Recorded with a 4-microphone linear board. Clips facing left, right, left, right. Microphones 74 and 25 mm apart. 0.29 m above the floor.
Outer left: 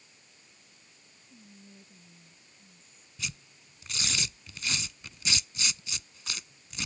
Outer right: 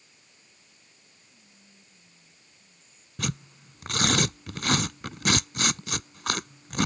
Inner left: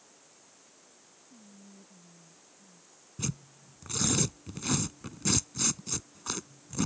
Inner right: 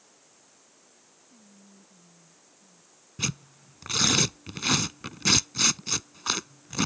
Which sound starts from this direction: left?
Whispering, at 1.3 s.